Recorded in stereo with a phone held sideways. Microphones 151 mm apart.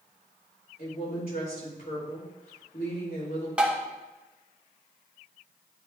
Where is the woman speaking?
75° left (ahead or behind), 2.5 m.